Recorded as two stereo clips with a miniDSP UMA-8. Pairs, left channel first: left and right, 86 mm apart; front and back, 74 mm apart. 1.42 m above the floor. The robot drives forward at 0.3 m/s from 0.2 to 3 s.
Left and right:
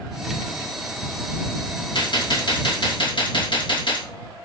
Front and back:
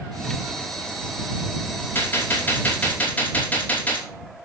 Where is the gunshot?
65° left, 2.5 m; by 4.0 s 70° left, 2.5 m.